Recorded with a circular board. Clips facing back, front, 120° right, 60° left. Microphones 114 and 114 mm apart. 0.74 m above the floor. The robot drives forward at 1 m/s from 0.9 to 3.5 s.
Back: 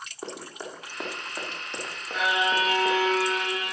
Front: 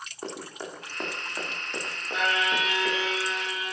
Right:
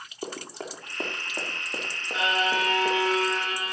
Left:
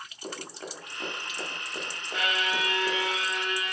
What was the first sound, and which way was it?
Running footsteps, 95° right.